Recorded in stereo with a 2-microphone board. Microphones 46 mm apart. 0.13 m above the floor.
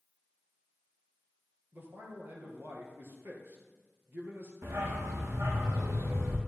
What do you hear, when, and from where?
1.7 s a man speaking: 55° right (ahead or behind), 3 m
4.6 s a dog barking: 80° right, 3 m